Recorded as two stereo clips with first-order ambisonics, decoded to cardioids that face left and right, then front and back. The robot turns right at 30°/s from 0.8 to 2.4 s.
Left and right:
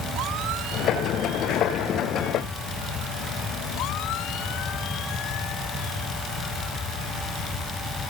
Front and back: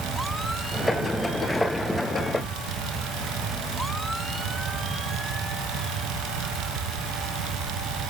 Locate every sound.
Only background noise.